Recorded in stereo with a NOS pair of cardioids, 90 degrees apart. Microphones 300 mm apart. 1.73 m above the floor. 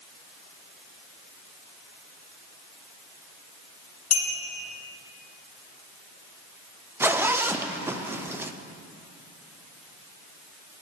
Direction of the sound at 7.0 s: 5° right.